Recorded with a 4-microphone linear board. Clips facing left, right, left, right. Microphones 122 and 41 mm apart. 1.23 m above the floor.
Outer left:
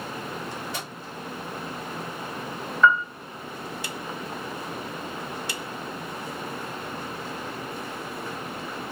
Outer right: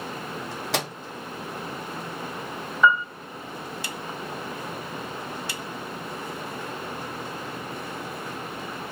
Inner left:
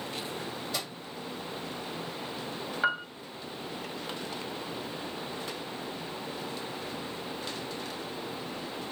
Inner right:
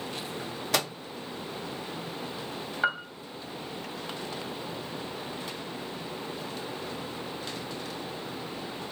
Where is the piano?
10° right (ahead or behind), 1.0 m.